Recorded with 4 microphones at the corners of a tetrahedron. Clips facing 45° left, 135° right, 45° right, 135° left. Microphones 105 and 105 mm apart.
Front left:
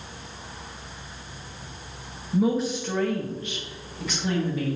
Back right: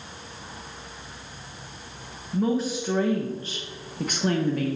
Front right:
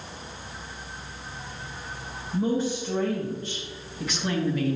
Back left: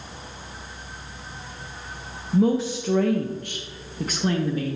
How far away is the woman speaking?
About 0.8 m.